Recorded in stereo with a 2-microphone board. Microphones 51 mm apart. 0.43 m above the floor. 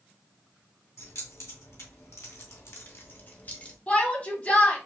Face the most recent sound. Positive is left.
turn(degrees=30)  # may be behind; listen again after turning